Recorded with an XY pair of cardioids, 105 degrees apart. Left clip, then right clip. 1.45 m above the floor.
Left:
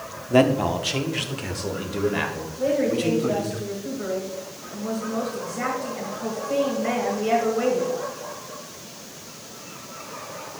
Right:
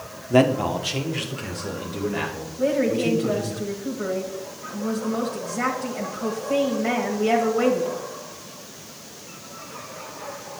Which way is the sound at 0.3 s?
5° right.